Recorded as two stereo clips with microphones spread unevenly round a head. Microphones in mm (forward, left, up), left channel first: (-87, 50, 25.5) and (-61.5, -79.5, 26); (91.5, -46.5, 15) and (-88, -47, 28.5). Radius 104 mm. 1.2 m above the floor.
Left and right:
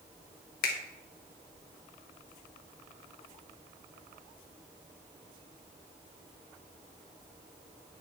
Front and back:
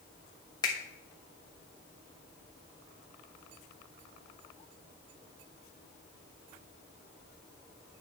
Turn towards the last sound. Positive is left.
turn(degrees=75)